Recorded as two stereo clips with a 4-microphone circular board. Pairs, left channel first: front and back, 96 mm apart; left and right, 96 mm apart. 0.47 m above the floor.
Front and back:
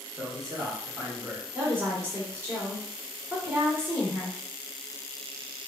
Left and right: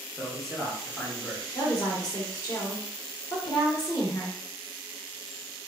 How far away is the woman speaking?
About 1.1 m.